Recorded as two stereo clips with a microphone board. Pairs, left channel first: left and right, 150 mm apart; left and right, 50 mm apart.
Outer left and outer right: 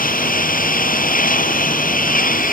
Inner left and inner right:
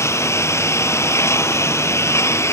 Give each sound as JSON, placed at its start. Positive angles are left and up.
{"t": 0.0, "sound": "a lawn mower", "side_deg": 70}